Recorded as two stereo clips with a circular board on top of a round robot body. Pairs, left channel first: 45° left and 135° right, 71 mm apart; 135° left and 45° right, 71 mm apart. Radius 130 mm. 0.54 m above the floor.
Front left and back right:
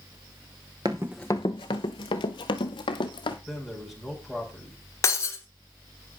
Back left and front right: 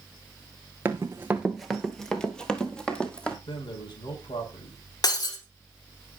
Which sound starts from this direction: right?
Running footsteps, at 0.8 s.